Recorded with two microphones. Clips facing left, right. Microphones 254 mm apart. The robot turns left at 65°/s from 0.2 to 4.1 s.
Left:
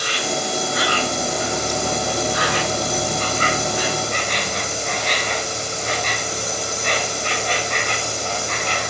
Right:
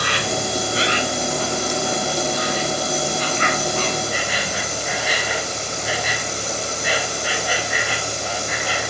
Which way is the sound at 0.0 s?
115° right.